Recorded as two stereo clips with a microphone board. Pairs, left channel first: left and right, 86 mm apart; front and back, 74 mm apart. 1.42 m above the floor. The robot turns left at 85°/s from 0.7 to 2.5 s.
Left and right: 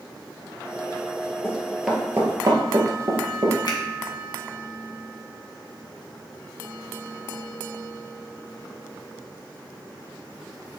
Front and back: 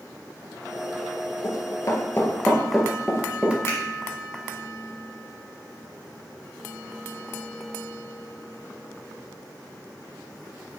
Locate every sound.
1.4 s running footsteps: 35° left, 2 m; by 3.5 s 115° right, 1.7 m
3.6 s a finger snap: 50° left, 1.7 m